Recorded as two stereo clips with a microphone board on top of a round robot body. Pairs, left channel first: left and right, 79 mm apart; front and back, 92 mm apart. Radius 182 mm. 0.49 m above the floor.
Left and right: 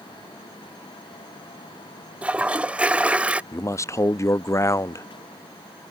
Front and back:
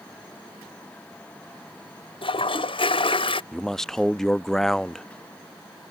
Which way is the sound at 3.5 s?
85° left.